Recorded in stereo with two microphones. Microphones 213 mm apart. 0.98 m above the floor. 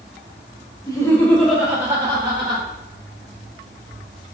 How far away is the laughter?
About 0.6 m.